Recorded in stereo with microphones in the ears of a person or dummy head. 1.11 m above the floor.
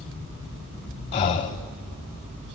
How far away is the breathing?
About 0.7 m.